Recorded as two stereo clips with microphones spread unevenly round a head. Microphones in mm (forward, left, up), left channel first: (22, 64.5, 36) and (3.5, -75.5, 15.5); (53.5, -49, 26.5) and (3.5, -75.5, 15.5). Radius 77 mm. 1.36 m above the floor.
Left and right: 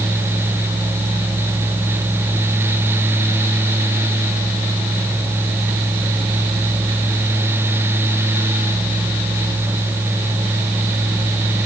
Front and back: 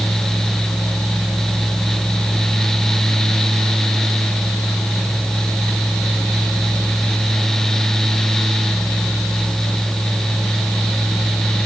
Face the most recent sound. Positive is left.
No sound to turn to.